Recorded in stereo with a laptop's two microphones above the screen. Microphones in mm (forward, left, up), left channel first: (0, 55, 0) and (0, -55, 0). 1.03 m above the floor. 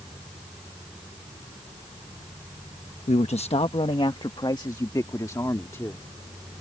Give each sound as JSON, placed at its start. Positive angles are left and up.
{"t": 3.1, "sound": "a man speaking", "side_deg": 75}